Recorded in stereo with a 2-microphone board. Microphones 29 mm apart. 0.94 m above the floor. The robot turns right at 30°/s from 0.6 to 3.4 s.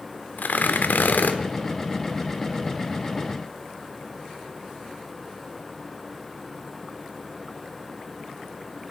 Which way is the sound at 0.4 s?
75° left (ahead or behind).